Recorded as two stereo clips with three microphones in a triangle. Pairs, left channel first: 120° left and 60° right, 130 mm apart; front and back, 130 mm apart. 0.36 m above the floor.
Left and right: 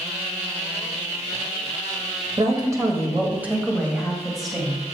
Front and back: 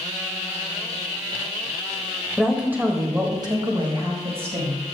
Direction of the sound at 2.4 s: 95° right.